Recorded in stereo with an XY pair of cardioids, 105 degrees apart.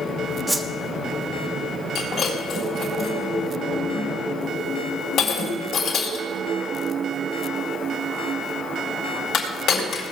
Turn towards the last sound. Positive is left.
turn(degrees=65)